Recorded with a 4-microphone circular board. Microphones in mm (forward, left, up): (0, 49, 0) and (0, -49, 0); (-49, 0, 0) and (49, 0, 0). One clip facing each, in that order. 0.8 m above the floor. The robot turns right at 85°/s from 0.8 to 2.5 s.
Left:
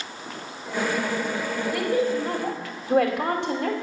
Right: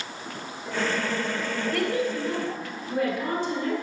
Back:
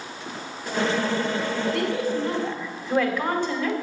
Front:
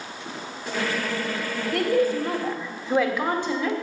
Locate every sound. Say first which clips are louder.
1.7 s a woman speaking: left 4 dB, front 3 dB; 5° left, 2.5 m; by 3.7 s 75° left, 2.5 m